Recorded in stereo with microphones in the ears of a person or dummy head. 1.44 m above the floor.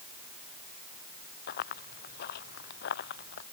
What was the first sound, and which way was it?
Running footsteps, 50° left (ahead or behind).